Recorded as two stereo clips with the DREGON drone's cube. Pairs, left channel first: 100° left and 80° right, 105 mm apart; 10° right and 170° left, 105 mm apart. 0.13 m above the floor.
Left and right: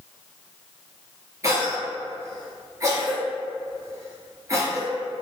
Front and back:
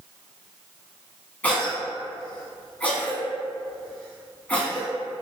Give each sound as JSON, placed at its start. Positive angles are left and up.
{"t": 1.4, "sound": "a cough", "azimuth_deg": -75, "distance_m": 1.2}